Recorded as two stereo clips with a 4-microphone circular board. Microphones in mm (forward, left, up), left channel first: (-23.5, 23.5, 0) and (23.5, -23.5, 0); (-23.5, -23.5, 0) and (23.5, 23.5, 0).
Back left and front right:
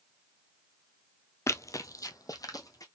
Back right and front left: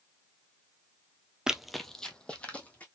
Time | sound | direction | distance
1.5 | running footsteps | 125° left | 0.5 m